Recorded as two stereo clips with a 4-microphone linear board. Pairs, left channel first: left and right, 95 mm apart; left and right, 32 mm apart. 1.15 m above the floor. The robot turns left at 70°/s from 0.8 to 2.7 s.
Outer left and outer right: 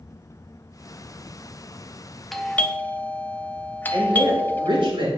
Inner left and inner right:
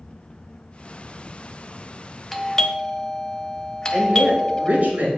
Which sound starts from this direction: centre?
A doorbell, at 2.3 s.